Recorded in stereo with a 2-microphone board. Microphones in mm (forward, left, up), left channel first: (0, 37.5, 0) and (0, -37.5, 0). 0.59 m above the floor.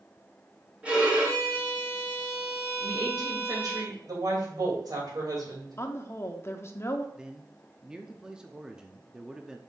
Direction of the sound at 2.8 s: 60° right (ahead or behind).